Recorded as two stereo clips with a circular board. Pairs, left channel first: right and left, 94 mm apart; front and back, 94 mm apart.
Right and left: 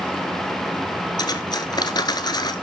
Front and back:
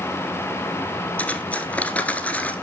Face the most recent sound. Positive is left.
turn(degrees=-70)